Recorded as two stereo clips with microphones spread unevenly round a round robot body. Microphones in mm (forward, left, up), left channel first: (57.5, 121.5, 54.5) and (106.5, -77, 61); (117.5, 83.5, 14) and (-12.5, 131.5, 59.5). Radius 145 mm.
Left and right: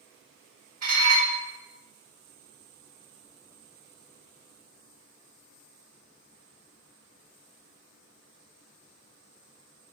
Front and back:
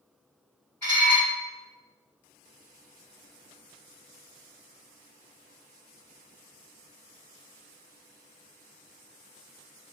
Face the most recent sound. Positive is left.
turn(degrees=-105)